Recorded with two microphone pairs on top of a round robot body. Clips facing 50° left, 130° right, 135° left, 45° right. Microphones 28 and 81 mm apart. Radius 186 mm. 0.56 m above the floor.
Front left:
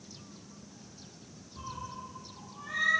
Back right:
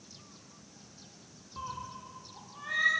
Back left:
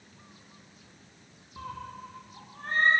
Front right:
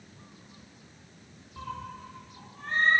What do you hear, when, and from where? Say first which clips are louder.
1.6 s a cat meowing: back right 1 dB, front right 1 dB; 140° right, 1.1 m; by 2.9 s straight behind, 1.2 m